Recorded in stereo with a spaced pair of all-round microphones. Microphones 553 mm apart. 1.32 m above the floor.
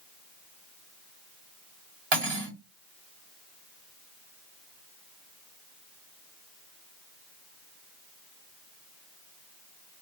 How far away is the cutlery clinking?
About 1.4 m.